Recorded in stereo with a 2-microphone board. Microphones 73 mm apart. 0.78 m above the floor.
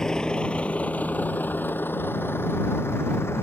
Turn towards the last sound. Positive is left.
turn(degrees=35)  # may be behind; listen again after turning